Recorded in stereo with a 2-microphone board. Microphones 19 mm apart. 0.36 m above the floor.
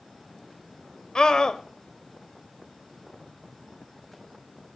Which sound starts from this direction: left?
A scream, at 1.1 s.